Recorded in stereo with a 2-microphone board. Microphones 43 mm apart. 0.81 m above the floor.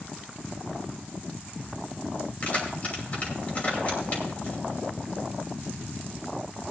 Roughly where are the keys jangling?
Left.